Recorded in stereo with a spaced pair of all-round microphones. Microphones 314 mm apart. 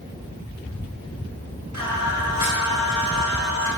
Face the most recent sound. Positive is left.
turn(degrees=-65)  # may be behind; listen again after turning